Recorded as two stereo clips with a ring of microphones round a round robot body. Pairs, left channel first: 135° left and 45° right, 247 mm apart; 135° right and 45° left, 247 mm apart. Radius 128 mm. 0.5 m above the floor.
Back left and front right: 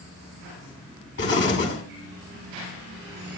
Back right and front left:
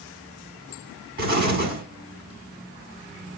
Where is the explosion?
95° left, 4 m.